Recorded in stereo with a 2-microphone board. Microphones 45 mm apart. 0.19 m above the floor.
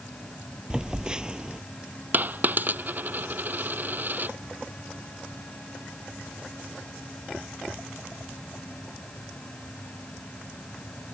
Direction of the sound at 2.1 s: 40° right (ahead or behind).